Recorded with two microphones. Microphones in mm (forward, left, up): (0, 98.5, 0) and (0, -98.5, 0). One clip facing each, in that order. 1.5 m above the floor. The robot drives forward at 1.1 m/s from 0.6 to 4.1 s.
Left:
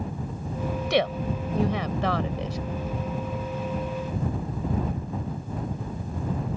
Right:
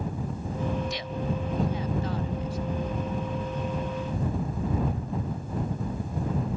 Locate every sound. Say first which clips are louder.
0.9 s a woman speaking: left 7 dB; 70° left (ahead or behind); by 2.6 s 85° left